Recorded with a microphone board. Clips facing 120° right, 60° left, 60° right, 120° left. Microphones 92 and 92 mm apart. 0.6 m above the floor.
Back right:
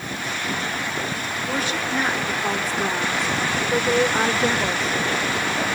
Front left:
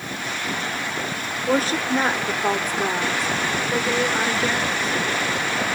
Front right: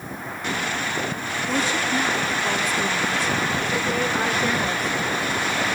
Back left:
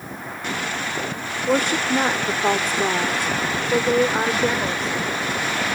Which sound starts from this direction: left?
A woman speaking, at 1.5 s.